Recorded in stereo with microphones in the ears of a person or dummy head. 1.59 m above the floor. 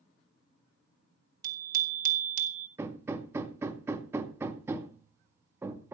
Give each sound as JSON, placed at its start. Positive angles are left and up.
{"t": 1.4, "sound": "a bicycle bell", "side_deg": -55, "distance_m": 3.0}
{"t": 2.8, "sound": "hammering", "side_deg": -15, "distance_m": 2.0}